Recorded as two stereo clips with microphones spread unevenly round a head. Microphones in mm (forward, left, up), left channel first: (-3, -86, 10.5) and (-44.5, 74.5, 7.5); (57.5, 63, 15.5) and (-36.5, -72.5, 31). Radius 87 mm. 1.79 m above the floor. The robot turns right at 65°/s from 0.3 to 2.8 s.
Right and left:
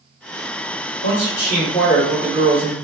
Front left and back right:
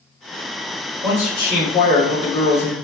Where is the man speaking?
35° right, 1.4 m; by 2.7 s 75° left, 1.4 m.